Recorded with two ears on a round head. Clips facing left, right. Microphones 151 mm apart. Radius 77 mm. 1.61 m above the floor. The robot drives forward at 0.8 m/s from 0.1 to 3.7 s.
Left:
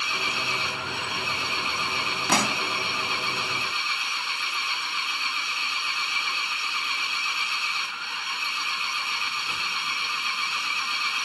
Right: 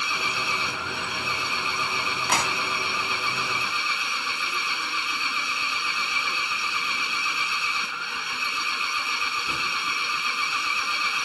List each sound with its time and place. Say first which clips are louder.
0.0 s an engine running: right 1 dB; 80° right; by 11.2 s 85° right
2.3 s a pop: left 3 dB; 80° left; by 2.6 s 75° left (ahead or behind)